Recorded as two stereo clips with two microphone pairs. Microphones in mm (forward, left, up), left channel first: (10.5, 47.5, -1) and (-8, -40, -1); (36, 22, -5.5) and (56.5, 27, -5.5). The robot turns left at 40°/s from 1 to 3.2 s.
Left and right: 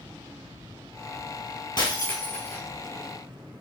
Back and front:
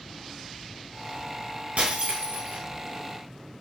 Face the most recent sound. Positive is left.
turn(degrees=-15)